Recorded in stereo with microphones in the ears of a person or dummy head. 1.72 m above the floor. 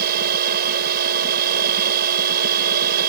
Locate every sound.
0.0 s a machine running: 55° right (ahead or behind)